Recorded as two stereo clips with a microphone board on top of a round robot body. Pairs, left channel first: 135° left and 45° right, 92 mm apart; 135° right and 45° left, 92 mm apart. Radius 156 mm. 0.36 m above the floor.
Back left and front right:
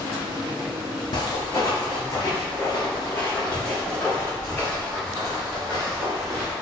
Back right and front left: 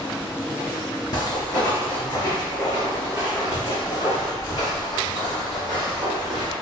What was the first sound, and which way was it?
Footsteps, straight behind.